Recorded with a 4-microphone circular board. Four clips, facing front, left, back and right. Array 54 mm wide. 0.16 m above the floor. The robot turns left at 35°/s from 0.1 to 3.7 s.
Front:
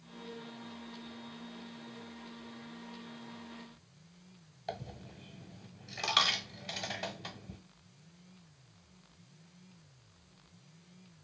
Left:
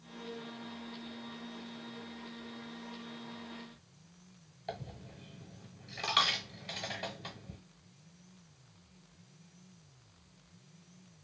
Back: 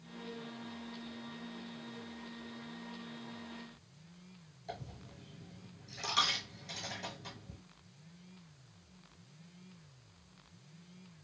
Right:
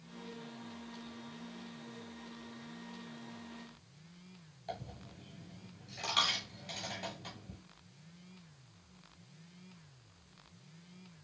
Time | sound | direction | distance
4.7 | a dropped coin | 35° left | 0.9 m